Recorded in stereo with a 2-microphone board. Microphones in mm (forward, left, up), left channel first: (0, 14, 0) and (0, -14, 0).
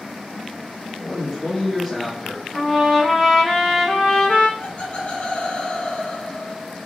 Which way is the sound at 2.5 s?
20° right (ahead or behind).